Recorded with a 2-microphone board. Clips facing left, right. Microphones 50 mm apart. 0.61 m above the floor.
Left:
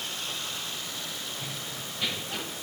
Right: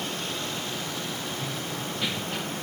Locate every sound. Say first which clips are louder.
1.4 s running footsteps: right 5 dB; 5° right (ahead or behind), 5 m; by 2.4 s centre (ahead or behind), 5.5 m